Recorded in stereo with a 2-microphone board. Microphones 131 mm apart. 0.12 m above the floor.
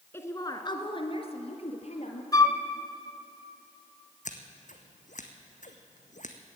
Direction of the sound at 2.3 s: 30° left (ahead or behind).